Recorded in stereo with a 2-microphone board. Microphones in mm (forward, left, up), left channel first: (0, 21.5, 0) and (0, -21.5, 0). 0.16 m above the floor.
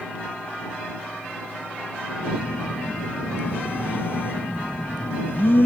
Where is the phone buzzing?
55° left (ahead or behind).